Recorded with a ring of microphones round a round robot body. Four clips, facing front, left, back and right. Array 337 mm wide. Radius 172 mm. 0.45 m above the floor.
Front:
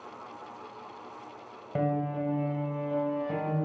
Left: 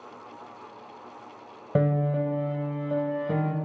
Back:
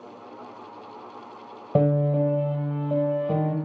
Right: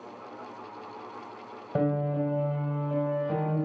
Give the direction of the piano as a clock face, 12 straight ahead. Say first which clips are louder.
Left 2 dB, back 8 dB; 7 o'clock.